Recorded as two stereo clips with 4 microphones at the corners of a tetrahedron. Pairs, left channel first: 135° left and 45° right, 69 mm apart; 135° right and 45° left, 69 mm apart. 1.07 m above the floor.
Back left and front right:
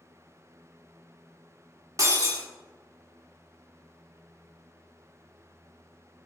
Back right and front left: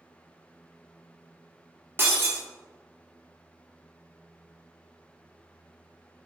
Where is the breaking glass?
5° right, 1.8 m.